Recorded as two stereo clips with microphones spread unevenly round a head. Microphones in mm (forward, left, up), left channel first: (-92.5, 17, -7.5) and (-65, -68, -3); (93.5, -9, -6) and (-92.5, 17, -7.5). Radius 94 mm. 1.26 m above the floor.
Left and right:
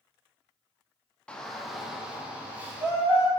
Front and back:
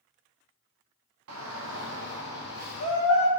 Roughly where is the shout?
Behind.